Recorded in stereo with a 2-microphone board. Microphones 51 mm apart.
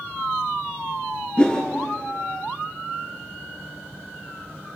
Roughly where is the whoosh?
Centre.